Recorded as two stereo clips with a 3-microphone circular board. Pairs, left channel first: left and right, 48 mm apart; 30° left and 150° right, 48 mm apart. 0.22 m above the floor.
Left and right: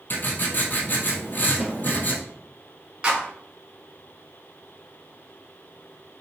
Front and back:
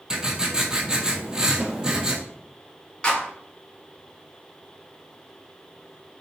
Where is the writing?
135° left, 0.9 m.